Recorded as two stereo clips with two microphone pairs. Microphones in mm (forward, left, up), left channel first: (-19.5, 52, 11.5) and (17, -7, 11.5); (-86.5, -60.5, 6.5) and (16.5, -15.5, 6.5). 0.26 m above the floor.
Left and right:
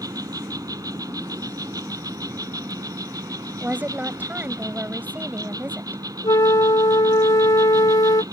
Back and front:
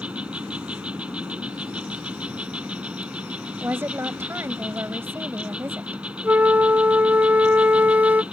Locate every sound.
0.0 s an insect: 55° right
3.6 s a woman speaking: 25° right
6.2 s a flute: 100° left